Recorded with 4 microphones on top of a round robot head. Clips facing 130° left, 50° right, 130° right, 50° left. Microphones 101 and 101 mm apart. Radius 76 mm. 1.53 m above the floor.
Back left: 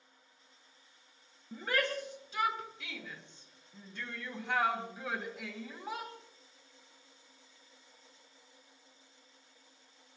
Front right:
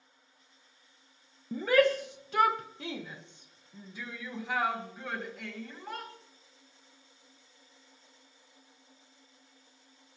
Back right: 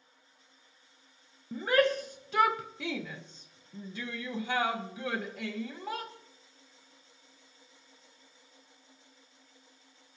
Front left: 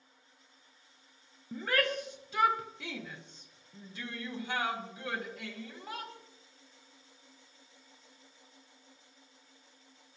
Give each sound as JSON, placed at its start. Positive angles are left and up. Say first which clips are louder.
{"t": 1.5, "sound": "a shout", "louder": "front right 10 dB, back right 6 dB", "azimuth_deg": -50, "distance_m": 0.7}